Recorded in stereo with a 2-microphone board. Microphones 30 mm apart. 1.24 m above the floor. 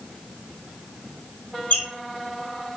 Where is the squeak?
60° left (ahead or behind), 1.7 m.